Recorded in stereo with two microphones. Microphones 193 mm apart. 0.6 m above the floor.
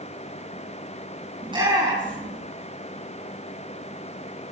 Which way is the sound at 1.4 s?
25° right (ahead or behind).